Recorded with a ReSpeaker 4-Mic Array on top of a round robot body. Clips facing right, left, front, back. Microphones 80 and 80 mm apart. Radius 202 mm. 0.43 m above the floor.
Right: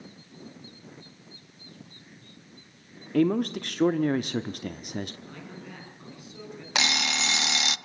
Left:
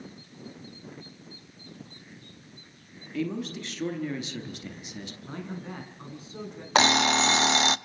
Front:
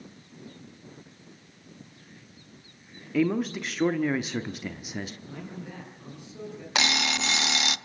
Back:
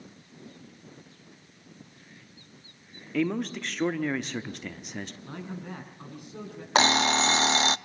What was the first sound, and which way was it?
A man speaking, 85° right.